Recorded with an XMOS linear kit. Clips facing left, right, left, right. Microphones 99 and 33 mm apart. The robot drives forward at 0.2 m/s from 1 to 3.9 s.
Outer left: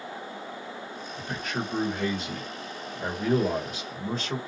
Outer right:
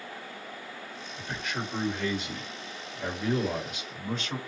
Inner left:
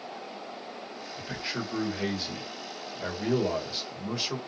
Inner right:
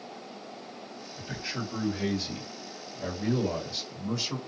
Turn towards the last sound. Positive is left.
turn(degrees=35)  # may be behind; listen again after turning